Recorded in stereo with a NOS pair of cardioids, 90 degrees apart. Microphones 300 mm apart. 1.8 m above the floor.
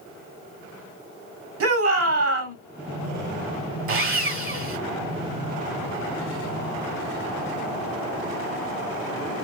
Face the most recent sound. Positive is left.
turn(degrees=-45)